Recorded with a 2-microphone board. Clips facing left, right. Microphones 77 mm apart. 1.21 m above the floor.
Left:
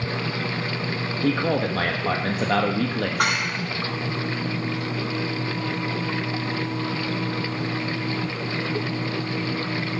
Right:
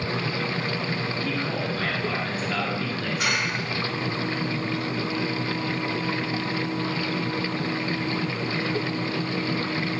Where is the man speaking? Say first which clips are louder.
Left 10 dB; 65° left (ahead or behind), 1.4 m.